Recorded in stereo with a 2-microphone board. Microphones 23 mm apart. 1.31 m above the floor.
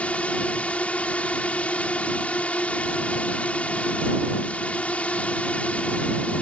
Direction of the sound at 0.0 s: 75° left (ahead or behind).